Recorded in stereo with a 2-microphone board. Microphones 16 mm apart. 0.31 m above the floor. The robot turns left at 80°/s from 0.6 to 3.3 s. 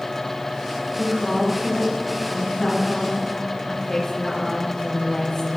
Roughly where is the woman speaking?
Ahead right.